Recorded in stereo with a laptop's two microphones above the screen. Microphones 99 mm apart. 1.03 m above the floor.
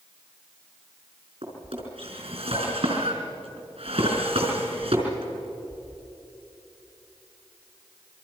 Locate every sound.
1.4 s a drawer: 75° right (ahead or behind), 5 m